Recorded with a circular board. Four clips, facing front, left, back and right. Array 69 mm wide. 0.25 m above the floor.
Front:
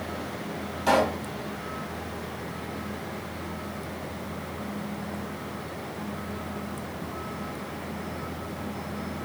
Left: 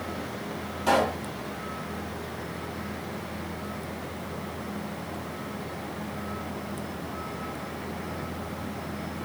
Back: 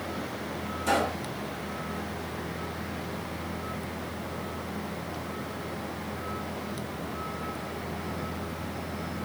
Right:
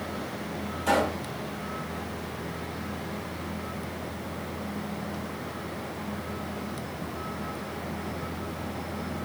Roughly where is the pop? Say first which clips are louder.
Left 2 dB, front 4 dB; ahead.